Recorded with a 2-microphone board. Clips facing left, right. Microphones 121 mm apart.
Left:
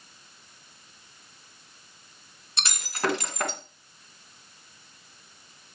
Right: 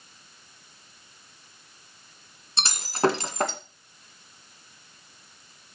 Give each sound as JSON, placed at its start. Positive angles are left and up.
{"t": 2.6, "sound": "breaking glass", "side_deg": -30, "distance_m": 1.9}